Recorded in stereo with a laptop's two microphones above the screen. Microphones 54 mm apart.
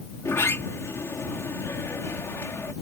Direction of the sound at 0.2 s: 60° left (ahead or behind).